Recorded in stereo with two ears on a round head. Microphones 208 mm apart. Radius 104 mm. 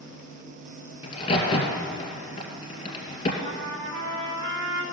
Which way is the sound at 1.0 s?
20° left (ahead or behind).